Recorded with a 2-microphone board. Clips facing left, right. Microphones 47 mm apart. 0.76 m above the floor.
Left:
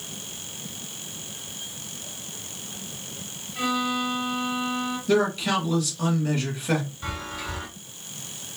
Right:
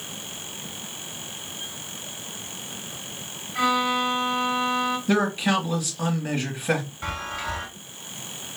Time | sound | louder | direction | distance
3.5 | a violin | right 4 dB | 60° right (ahead or behind) | 1.3 m
5.1 | a man speaking | left 2 dB | 30° right (ahead or behind) | 1.0 m
7.0 | a chime | right 3 dB | 40° right (ahead or behind) | 1.5 m